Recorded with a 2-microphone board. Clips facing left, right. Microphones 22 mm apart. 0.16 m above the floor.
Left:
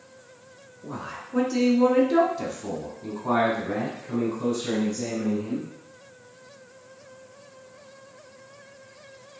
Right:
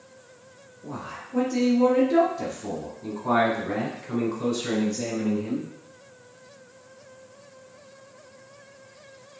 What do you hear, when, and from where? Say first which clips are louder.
0.8 s a man speaking: left 1 dB; 50° left (ahead or behind), 1.9 m; by 5.7 s 50° right (ahead or behind), 1.8 m